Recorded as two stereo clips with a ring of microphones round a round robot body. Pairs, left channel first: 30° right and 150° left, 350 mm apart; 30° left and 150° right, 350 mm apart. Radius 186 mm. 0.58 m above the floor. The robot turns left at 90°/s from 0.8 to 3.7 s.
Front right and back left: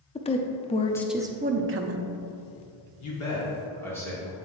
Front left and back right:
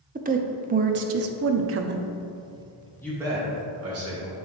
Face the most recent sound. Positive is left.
turn(degrees=-115)